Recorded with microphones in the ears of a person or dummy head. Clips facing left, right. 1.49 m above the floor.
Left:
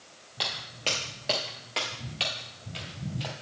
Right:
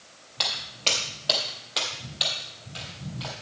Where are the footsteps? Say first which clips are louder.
Right 1 dB; 10° left (ahead or behind), 2 m; by 3.3 s 25° left (ahead or behind), 2.5 m.